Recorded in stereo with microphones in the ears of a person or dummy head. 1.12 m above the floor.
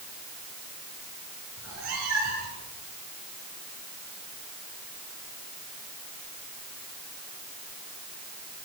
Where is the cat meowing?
85° right, 9 m.